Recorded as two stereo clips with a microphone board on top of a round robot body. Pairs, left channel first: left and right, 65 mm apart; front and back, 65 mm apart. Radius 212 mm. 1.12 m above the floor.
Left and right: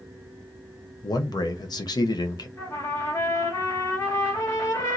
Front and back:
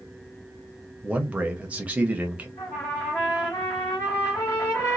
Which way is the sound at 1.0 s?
105° left.